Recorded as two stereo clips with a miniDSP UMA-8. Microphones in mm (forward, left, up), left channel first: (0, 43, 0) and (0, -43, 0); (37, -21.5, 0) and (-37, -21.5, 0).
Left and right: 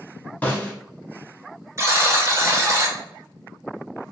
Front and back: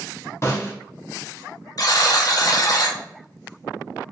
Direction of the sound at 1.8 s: 35° right.